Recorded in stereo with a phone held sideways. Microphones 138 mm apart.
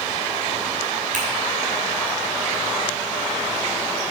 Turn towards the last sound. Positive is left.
turn(degrees=-65)  # may be behind; listen again after turning